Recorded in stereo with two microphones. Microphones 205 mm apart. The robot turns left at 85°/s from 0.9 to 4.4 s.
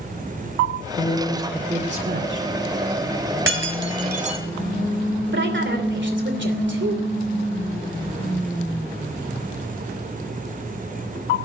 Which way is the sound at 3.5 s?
75° right (ahead or behind).